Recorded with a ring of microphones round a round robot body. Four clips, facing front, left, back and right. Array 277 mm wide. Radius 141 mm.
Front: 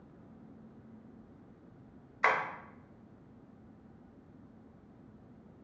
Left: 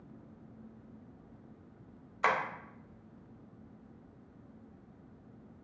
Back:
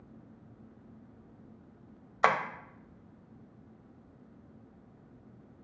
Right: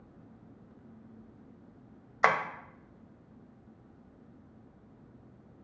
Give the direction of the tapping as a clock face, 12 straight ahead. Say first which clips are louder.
Right 4 dB, back 3 dB; 5 o'clock.